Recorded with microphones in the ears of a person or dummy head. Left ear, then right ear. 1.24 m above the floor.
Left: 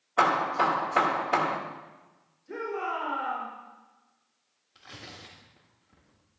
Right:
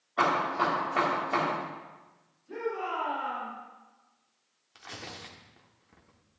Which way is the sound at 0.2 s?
35° left (ahead or behind).